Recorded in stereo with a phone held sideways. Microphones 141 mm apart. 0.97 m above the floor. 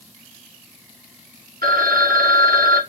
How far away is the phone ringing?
About 0.8 m.